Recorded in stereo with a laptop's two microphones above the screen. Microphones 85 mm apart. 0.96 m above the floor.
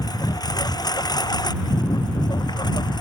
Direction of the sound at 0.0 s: 50° left (ahead or behind).